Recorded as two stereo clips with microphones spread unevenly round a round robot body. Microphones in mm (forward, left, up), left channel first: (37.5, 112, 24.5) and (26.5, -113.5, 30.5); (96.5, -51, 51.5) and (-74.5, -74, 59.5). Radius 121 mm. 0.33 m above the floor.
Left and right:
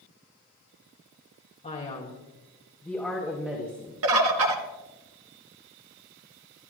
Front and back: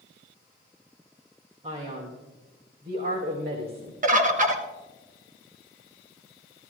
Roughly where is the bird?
Behind right.